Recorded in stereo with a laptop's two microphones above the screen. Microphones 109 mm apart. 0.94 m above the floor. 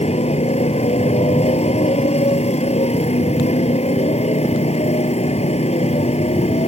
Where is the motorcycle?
75° left (ahead or behind).